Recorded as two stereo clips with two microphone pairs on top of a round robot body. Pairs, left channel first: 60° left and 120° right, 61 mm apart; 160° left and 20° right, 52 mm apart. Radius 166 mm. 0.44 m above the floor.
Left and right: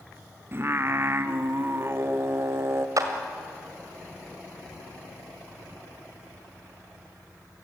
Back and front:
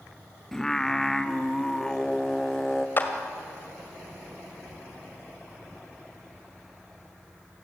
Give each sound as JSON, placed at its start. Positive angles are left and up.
{"t": 0.5, "sound": "singing", "azimuth_deg": -120, "distance_m": 1.4}
{"t": 3.0, "sound": "a clap", "azimuth_deg": -150, "distance_m": 1.9}